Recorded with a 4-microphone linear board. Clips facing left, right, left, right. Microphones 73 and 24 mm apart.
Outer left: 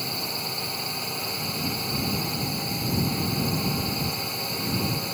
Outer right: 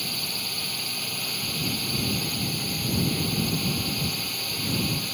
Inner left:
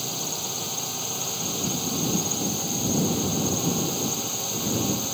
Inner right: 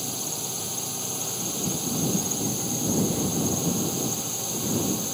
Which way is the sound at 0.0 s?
20° left (ahead or behind).